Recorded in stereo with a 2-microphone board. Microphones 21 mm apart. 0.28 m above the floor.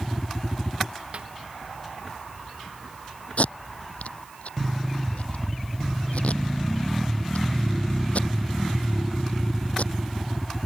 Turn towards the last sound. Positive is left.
turn(degrees=75)  # may be behind; listen again after turning